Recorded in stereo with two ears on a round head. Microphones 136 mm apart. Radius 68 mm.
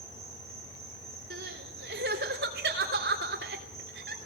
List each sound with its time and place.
0.0 s an insect: 20° right (ahead or behind), 6 m
1.3 s crying: 70° right (ahead or behind), 3 m